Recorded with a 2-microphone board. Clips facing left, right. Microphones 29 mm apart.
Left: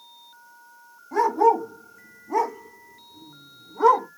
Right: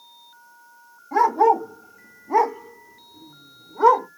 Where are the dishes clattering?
No dishes clattering in this recording.